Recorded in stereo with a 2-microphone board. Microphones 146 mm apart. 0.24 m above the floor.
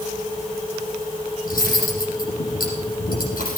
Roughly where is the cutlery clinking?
Left.